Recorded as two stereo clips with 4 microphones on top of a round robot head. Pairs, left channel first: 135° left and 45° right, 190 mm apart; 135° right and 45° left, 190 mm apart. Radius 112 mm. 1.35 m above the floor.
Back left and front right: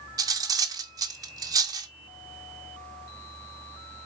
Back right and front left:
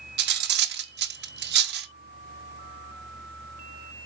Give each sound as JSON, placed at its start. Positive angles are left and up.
{"t": 0.2, "sound": "cutlery clinking", "azimuth_deg": 25, "distance_m": 0.9}